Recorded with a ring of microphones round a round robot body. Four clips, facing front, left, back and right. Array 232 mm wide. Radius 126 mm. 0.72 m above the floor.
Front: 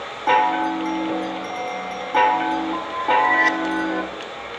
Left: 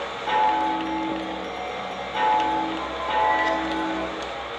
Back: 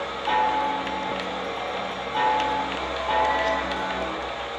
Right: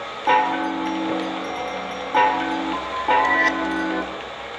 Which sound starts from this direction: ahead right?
A chime, at 0.3 s.